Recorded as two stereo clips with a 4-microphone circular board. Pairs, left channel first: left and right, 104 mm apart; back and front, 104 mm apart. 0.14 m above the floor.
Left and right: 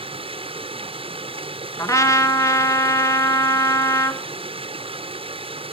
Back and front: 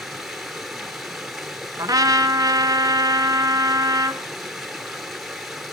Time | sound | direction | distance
0.0 | running water | 85° right | 1.2 m
1.8 | a trumpet | 40° left | 1.0 m